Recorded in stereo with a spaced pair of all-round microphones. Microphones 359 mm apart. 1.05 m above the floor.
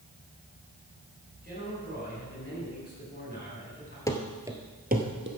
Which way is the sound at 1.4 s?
25° left (ahead or behind).